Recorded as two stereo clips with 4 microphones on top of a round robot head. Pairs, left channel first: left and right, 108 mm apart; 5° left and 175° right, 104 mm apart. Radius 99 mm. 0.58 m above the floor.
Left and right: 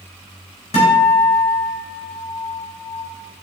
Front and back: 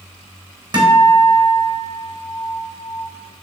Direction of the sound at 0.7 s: 135° left.